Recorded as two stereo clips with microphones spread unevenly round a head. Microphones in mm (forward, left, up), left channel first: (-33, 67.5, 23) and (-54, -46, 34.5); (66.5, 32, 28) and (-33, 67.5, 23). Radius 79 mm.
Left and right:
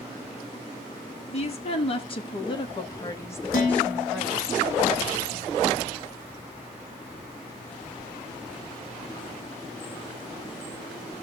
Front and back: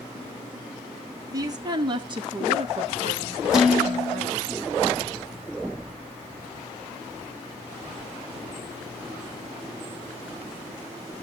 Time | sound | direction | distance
1.3 | a woman speaking | 105° left | 1.9 m
3.5 | dishes clattering | 75° left | 2 m